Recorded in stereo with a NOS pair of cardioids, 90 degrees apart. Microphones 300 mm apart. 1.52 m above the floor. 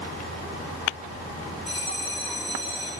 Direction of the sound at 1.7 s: 20° left.